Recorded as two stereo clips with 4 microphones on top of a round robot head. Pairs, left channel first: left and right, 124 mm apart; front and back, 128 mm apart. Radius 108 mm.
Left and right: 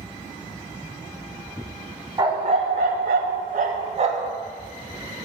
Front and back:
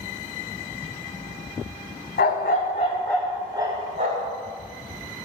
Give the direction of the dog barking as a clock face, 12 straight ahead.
1 o'clock.